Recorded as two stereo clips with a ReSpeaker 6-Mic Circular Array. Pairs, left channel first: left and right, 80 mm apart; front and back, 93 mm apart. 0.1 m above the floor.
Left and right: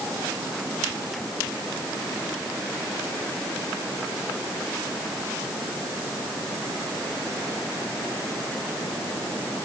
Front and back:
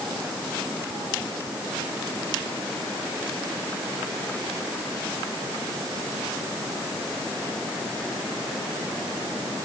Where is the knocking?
No knocking in this recording.